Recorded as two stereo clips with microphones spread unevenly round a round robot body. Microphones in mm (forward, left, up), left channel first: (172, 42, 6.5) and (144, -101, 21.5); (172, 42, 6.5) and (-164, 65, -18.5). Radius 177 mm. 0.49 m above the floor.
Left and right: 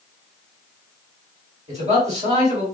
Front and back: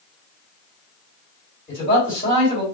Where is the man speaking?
75° right, 1.7 m.